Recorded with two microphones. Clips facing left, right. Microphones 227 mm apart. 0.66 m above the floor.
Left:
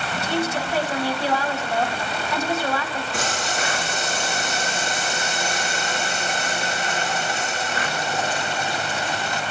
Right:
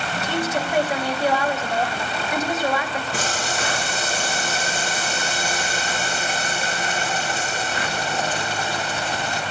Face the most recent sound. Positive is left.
turn(degrees=-35)  # may be behind; listen again after turning